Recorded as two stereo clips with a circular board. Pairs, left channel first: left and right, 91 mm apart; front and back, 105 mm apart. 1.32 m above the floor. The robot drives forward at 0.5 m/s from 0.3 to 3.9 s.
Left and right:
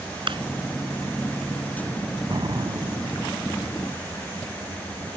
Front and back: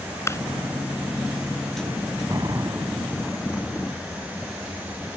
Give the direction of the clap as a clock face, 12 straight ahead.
2 o'clock.